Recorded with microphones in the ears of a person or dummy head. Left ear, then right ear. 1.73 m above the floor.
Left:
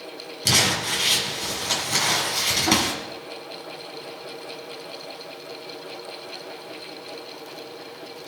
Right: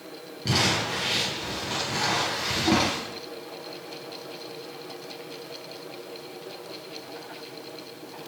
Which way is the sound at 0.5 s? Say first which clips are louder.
Left 4 dB; 75° left (ahead or behind).